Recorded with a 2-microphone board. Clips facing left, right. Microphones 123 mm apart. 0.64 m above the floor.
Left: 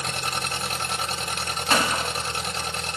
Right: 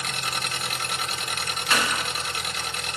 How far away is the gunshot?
About 1.1 m.